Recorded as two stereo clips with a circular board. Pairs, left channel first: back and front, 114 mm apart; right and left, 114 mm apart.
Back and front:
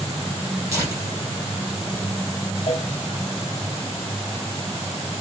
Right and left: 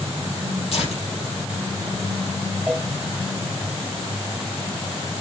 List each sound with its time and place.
0.7 s tearing paper: 60° right, 4.5 m
2.7 s a cowbell: straight behind, 2.5 m